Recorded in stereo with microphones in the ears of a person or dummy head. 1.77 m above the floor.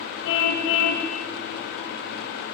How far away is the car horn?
About 5 m.